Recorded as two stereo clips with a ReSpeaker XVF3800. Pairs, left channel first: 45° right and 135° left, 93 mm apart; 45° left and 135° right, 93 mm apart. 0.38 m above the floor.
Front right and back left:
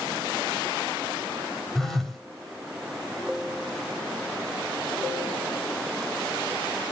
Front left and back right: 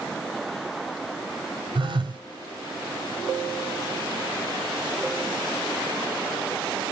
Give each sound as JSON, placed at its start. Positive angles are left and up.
{"t": 1.8, "sound": "a phone buzzing", "azimuth_deg": -135, "distance_m": 2.5}